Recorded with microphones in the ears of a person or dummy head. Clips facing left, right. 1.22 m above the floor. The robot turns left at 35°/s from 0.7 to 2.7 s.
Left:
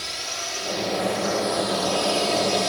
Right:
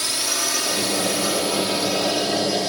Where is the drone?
110° right; by 2.7 s straight behind.